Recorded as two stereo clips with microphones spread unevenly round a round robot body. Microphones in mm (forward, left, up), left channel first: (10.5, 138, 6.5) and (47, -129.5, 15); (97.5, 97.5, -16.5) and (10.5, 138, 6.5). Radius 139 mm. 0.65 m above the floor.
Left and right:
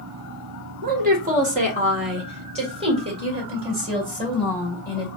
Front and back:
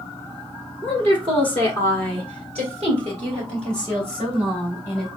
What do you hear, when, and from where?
0.8 s a woman speaking: 140° right, 1.0 m; by 5.1 s 155° right, 3 m